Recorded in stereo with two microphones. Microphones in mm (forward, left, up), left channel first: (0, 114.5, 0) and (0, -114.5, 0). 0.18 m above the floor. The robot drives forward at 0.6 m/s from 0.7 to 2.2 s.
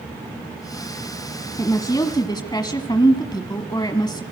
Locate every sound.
1.6 s a woman speaking: 15° left (ahead or behind), 1.3 m